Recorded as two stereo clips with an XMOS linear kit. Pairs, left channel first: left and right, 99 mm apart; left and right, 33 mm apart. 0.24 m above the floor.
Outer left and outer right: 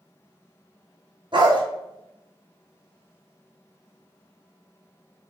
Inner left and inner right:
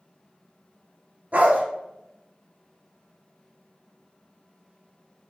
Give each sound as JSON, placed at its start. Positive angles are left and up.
{"t": 1.3, "sound": "a dog barking", "side_deg": -55, "distance_m": 1.2}